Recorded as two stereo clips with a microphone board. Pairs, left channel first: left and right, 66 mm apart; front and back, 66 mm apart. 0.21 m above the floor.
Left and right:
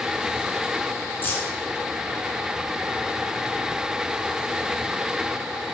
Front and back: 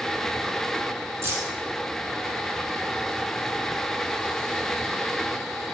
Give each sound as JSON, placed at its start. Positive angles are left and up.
{"t": 1.2, "sound": "keys jangling", "azimuth_deg": 145, "distance_m": 1.6}